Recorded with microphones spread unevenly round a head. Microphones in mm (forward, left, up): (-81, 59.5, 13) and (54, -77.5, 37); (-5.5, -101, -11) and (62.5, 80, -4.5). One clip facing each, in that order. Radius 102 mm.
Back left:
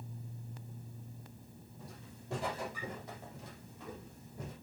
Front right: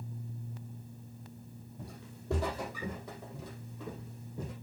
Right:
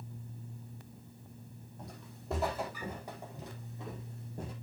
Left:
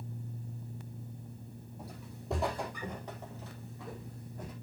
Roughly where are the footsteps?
Ahead.